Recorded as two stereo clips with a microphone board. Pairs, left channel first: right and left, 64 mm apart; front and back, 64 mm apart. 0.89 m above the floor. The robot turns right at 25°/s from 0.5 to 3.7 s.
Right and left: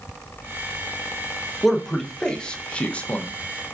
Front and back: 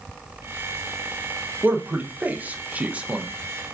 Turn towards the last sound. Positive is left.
turn(degrees=-120)